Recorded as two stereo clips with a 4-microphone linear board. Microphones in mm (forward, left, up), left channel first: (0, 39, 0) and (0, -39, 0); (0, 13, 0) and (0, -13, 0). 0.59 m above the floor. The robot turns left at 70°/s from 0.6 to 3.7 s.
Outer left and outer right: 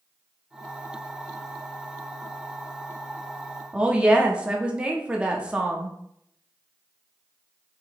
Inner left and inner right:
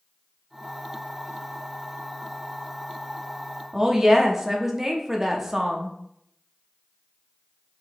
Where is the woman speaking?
15° right (ahead or behind), 0.6 m.